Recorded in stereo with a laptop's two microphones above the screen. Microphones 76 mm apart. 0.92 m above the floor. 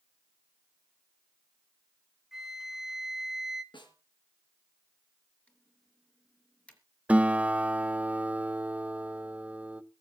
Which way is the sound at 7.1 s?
15° right (ahead or behind).